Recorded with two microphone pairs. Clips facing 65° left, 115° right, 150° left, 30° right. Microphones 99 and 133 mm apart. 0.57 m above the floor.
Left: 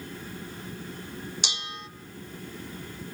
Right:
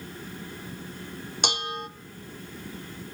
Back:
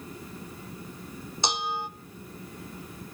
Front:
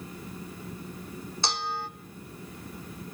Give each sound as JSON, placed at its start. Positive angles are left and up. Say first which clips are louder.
{"t": 1.4, "sound": "dishes clattering", "louder": "right 8 dB, back 2 dB", "azimuth_deg": -140, "distance_m": 0.9}